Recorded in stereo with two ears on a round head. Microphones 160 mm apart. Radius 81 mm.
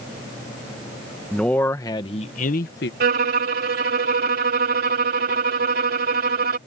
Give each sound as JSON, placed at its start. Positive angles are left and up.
{"t": 1.3, "sound": "a man speaking", "side_deg": 5}
{"t": 3.0, "sound": "a violin", "side_deg": -50}